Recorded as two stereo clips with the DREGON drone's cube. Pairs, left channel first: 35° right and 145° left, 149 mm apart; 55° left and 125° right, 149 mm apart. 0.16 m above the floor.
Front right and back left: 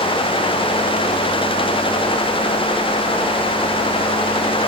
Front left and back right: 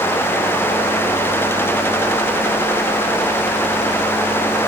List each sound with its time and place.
Only background noise.